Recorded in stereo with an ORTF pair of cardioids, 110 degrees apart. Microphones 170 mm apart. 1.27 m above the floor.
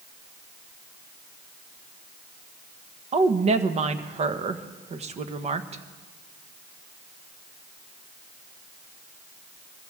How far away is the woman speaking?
About 1.3 m.